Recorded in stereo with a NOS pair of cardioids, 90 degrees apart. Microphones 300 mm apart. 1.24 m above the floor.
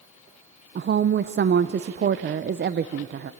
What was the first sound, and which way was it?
A woman speaking, 35° right.